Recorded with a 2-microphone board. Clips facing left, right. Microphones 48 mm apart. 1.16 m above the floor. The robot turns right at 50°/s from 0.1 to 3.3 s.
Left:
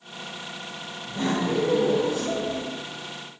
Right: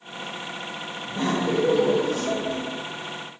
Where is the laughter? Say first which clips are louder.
Right 1 dB; 165° right, 0.6 m; by 2.6 s 85° right, 0.6 m.